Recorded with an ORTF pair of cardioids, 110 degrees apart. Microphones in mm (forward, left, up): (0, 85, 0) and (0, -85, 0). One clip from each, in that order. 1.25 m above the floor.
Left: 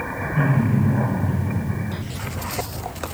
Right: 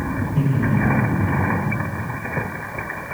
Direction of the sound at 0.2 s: 15° right.